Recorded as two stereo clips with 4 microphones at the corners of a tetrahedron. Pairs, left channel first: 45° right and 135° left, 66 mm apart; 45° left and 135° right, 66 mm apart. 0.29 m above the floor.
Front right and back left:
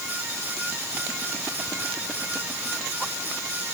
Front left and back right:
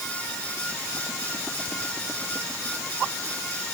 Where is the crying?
I don't hear crying.